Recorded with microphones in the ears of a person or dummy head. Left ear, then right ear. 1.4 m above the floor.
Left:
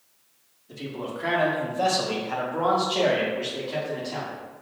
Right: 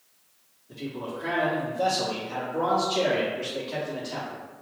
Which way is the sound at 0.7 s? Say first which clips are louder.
Left 1 dB; 70° left (ahead or behind).